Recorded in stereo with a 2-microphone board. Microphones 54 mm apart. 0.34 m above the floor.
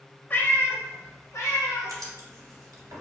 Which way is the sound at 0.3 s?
35° left (ahead or behind).